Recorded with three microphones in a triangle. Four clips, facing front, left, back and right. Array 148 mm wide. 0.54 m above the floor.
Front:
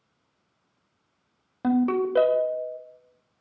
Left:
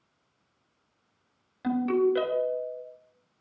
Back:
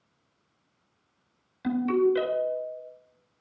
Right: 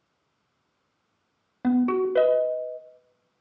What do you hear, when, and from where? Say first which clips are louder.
1.6 s a ringtone: right 2 dB, front 1 dB; 30° right, 1.2 m